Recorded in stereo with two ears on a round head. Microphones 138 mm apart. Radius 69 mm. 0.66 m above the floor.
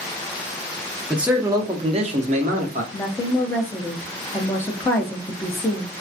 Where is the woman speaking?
15° left (ahead or behind), 0.5 m.